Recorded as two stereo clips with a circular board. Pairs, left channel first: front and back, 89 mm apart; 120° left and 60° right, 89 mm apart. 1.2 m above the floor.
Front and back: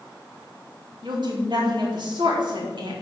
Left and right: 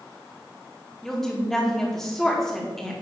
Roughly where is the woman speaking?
Behind right.